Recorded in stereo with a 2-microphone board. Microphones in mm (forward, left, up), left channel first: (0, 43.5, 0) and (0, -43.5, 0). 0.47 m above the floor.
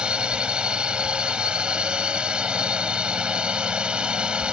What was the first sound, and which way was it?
A drone, 10° right (ahead or behind).